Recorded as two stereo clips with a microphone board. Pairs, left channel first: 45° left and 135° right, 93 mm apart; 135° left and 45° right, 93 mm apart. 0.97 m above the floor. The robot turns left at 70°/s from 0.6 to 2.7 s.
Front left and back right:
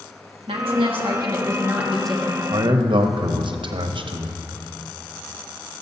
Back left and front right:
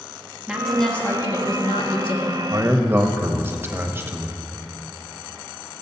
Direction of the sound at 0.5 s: 125° right.